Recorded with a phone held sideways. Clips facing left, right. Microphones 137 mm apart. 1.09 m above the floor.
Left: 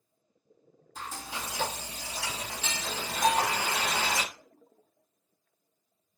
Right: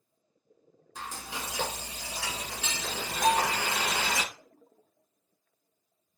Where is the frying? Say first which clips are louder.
Even; 70° right (ahead or behind), 2 m.